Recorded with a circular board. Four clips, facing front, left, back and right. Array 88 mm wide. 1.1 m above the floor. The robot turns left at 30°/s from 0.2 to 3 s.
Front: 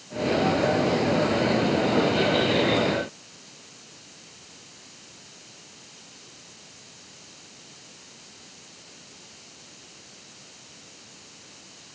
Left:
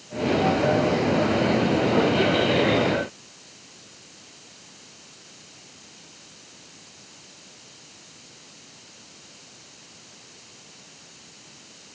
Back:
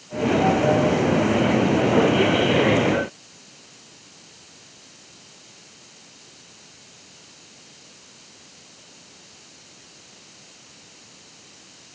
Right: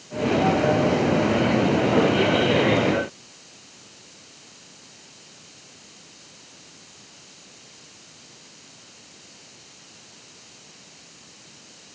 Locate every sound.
Only background noise.